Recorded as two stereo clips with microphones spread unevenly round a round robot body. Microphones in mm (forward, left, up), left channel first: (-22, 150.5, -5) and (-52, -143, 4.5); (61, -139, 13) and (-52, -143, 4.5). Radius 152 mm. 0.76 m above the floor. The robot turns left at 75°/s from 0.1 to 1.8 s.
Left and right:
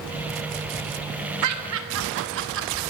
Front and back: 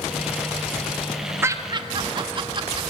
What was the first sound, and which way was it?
Laughter, 110° right.